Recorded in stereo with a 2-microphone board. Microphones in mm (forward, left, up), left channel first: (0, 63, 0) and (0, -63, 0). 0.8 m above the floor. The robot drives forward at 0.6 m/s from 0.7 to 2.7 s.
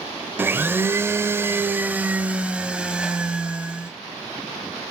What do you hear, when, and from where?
0.4 s a blender: 15° right (ahead or behind), 0.6 m; by 3.9 s 10° right (ahead or behind), 1.1 m